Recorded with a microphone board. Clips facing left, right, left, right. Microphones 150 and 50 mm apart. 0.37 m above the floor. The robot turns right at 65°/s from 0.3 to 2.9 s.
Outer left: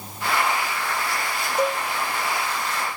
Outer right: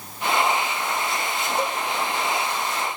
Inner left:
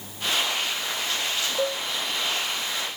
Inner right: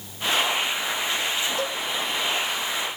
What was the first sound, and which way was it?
A cowbell, 15° left (ahead or behind).